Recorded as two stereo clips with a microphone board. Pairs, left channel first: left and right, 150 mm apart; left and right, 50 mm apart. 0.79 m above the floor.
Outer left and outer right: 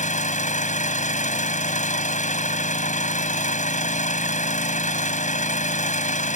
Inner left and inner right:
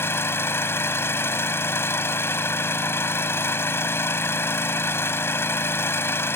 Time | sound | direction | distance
0.0 | an engine running | 55° left (ahead or behind) | ?